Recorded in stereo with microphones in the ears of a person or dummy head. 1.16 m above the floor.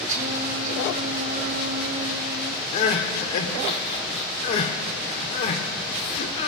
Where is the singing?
50° right (ahead or behind), 1.0 m.